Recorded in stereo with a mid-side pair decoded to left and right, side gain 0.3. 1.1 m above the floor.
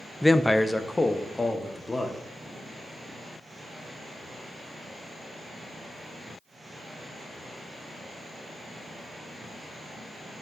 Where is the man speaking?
10° left, 0.5 m; by 2.3 s 25° left, 2 m.